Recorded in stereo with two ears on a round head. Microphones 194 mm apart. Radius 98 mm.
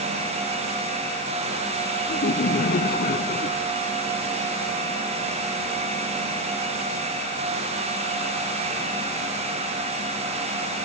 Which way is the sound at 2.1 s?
40° left (ahead or behind).